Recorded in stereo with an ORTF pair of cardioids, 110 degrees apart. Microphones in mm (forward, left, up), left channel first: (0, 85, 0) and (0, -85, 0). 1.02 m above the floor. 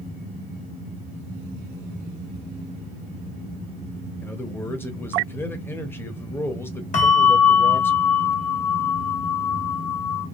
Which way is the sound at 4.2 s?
10° left.